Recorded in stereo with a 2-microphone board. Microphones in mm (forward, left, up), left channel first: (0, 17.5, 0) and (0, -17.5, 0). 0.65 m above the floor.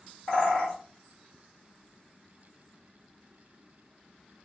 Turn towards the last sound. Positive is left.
turn(degrees=25)  # may be behind; listen again after turning